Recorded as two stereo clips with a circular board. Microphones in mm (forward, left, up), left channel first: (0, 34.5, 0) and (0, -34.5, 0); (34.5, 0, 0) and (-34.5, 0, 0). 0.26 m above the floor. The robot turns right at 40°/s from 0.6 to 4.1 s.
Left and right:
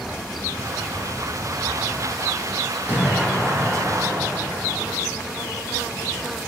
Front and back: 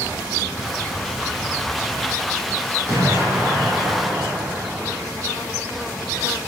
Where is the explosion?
155° right, 1.9 m; by 5.0 s 105° right, 1.9 m.